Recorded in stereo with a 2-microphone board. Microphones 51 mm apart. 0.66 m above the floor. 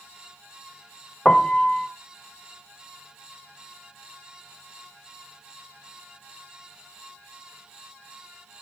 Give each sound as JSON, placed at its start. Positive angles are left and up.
{"t": 1.2, "sound": "a piano", "side_deg": 15, "distance_m": 0.8}